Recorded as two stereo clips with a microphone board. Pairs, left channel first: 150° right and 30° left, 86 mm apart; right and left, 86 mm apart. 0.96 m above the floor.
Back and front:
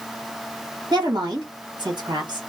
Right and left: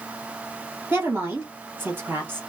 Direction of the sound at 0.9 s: 30° left.